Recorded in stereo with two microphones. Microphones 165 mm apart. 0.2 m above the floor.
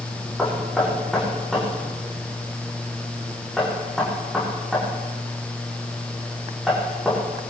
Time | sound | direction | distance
0.4 | knocking | centre (ahead or behind) | 7.5 m